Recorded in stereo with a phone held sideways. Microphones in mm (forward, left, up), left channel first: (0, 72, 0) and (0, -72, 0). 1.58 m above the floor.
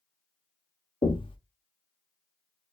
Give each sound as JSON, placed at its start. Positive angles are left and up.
{"t": 1.0, "sound": "knocking", "side_deg": 35, "distance_m": 0.6}